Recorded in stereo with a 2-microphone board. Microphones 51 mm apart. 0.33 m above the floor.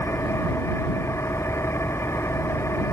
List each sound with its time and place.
0.0 s an engine running: 70° left (ahead or behind)